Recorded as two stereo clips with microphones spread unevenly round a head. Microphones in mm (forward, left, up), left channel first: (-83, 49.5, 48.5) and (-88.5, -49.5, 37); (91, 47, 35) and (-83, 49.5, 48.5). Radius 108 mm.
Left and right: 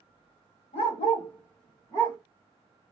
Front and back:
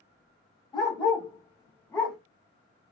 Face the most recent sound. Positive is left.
turn(degrees=95)